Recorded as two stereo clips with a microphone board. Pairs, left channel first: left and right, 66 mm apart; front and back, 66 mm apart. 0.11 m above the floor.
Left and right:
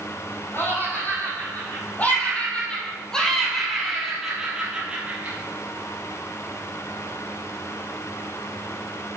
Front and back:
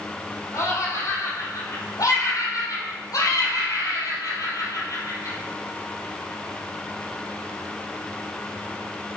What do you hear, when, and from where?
0.5 s laughter: 35° left, 5 m; by 5.4 s 30° right, 3 m